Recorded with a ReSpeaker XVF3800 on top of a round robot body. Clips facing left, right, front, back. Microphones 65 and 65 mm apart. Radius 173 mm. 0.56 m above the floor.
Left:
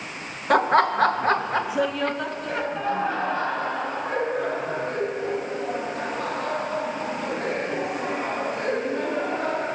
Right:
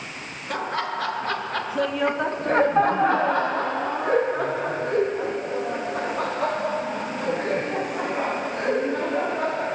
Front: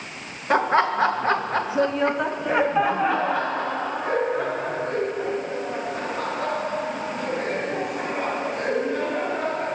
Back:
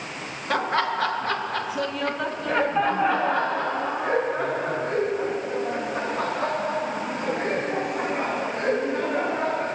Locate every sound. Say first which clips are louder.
0.5 s laughter: left 9 dB, front 4 dB; 65° left, 1.2 m; by 9.7 s 100° right, 5 m